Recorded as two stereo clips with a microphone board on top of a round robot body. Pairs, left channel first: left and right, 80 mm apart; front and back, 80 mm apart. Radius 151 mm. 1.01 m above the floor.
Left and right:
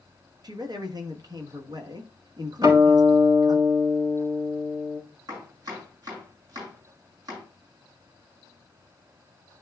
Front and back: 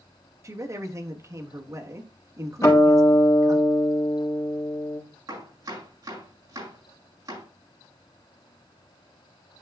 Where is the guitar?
55° right, 4 m.